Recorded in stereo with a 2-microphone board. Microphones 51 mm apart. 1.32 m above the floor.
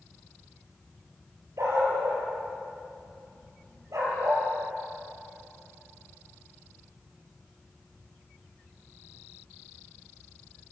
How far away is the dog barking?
About 6.5 m.